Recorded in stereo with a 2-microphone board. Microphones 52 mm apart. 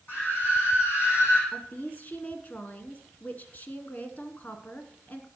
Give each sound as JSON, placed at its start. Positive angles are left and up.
{"t": 0.1, "sound": "a scream", "side_deg": 40, "distance_m": 6.5}
{"t": 1.5, "sound": "a woman speaking", "side_deg": 35, "distance_m": 1.4}